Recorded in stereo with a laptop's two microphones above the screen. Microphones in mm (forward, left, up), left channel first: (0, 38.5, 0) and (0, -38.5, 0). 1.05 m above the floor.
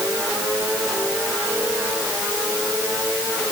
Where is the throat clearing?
I don't hear throat clearing.